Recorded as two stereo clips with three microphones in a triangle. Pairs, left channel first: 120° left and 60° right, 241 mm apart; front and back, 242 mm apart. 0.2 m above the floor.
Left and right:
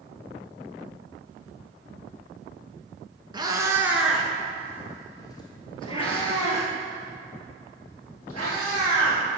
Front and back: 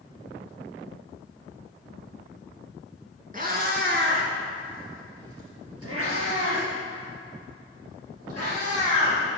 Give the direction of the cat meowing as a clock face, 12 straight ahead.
4 o'clock.